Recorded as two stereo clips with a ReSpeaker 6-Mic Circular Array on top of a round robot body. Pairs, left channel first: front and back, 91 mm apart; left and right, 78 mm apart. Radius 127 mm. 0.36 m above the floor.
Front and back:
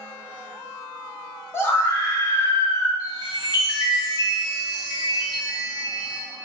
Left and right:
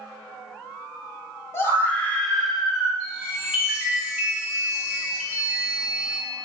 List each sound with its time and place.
1.5 s a scream: 50° left, 1.0 m; by 2.9 s 30° right, 0.9 m
3.0 s a chime: 15° right, 1.8 m